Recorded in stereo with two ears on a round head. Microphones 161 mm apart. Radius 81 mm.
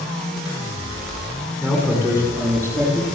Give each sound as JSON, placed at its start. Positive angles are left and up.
{"t": 1.6, "sound": "a man speaking", "side_deg": -10, "distance_m": 8.0}